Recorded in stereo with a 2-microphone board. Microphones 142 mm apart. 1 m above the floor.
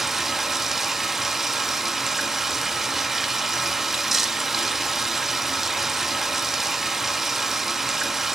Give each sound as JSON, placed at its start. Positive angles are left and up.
{"t": 0.0, "sound": "running water", "side_deg": 0, "distance_m": 0.9}